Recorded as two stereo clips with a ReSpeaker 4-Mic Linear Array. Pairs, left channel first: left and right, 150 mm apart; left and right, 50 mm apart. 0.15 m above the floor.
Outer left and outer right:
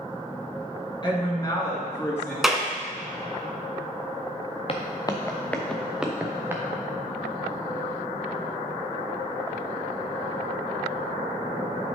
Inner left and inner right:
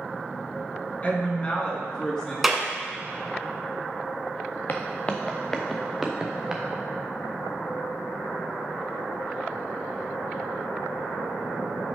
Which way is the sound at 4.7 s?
40° left (ahead or behind).